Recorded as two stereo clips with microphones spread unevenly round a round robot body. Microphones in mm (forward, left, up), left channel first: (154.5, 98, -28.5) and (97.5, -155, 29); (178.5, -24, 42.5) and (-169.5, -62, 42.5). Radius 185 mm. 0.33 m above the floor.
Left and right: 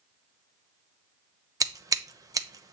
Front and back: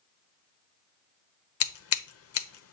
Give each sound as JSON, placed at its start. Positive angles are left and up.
{"t": 1.6, "sound": "scissors", "azimuth_deg": -15, "distance_m": 0.9}